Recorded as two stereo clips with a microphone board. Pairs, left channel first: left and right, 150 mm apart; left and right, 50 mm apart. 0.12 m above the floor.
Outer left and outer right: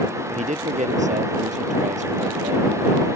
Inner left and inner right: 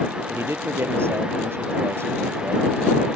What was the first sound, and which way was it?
A man speaking, 55° right (ahead or behind).